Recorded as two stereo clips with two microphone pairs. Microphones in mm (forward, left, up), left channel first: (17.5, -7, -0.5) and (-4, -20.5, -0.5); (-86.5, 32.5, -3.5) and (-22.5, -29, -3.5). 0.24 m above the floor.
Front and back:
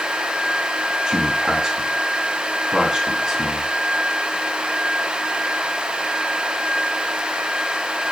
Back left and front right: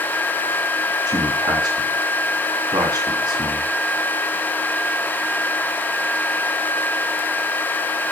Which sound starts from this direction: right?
A man speaking, at 1.1 s.